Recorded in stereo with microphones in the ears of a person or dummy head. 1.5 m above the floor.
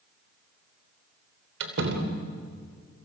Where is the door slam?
70° right (ahead or behind), 3 m.